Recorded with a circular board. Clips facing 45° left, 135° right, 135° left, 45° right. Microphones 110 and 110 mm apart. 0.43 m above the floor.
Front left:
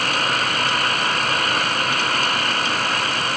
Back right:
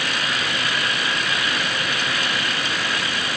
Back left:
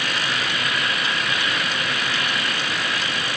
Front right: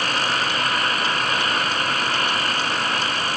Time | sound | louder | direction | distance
0.0 | an engine running | front left 4 dB, front right 3 dB | straight ahead | ?